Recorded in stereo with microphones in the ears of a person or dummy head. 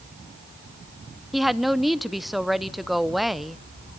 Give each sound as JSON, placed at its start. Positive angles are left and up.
{"t": 1.3, "sound": "a woman speaking", "side_deg": 0, "distance_m": 0.5}